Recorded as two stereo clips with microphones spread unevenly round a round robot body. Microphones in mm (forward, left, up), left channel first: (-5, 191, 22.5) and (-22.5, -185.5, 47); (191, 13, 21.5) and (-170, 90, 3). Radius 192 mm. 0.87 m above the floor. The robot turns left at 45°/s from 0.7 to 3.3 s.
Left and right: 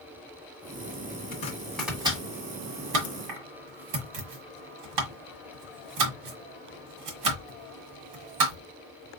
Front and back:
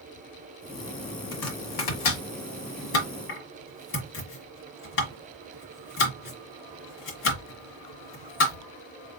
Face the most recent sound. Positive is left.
turn(degrees=-70)